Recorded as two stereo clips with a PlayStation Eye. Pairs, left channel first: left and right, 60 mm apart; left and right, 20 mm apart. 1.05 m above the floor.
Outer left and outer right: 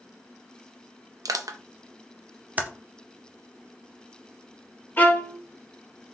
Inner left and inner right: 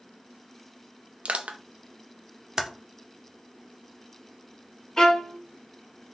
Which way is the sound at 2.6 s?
25° right (ahead or behind).